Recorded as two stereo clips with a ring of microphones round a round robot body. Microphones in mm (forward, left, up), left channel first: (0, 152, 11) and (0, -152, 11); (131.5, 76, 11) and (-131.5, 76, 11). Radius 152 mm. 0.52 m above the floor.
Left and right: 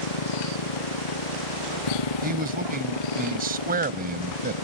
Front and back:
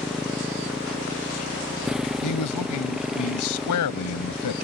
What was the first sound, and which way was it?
A motorcycle, 90° left.